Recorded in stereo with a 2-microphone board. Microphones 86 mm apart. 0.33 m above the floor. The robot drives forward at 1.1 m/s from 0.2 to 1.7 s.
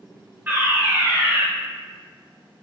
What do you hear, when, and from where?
0.5 s a fire alarm: 20° right (ahead or behind), 1.9 m; by 1.4 s 15° right (ahead or behind), 2 m